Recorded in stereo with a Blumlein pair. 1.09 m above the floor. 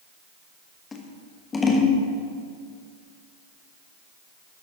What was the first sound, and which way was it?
Scissors, 15° left.